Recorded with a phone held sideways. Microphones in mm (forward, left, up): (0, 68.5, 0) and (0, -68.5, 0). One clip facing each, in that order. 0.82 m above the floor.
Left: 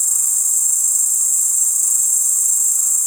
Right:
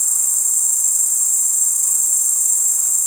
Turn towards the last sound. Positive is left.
turn(degrees=-60)  # may be behind; listen again after turning